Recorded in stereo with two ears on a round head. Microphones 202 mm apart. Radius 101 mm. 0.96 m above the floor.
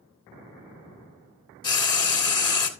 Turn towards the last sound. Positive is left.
turn(degrees=20)  # may be behind; listen again after turning